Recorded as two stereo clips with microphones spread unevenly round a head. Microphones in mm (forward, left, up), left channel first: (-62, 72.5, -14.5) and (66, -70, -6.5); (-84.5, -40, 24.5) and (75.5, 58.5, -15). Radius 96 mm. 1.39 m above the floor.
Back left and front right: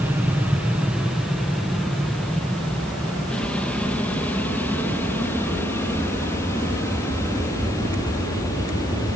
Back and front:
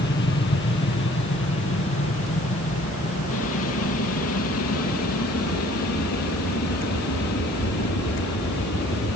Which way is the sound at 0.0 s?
125° right.